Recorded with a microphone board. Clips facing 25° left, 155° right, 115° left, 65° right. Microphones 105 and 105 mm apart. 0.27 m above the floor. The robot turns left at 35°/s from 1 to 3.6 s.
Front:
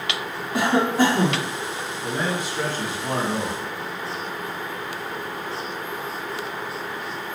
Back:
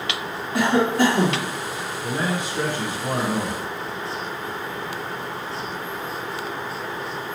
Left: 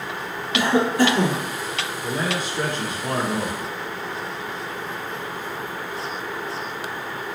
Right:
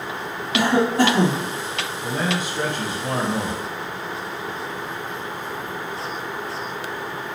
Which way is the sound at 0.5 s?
50° right.